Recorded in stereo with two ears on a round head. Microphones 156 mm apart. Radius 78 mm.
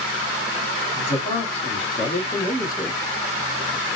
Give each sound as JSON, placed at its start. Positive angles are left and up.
{"t": 0.9, "sound": "a man speaking", "side_deg": 40, "distance_m": 1.9}